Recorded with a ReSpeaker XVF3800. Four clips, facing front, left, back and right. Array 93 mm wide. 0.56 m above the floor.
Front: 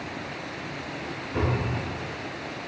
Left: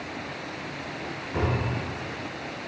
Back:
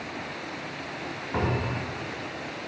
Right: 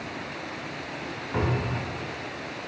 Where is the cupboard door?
155° right, 2.5 m.